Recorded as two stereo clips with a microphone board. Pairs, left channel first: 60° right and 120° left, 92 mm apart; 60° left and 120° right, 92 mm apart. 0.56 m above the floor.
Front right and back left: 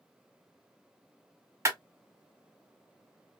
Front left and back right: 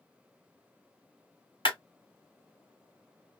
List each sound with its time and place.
1.6 s a clap: 65° left, 2 m